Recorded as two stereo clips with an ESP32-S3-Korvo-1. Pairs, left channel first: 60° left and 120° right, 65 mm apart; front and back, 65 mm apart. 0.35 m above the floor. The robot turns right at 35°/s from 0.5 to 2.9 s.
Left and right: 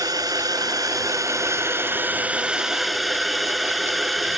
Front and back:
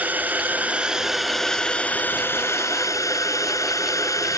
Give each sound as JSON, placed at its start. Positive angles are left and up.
{"t": 0.0, "sound": "a drone", "azimuth_deg": -115}